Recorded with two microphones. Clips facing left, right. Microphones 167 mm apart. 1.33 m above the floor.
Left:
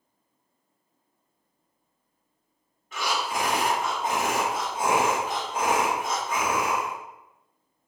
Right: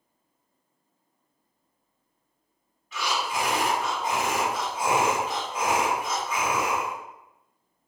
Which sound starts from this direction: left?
Breathing, at 2.9 s.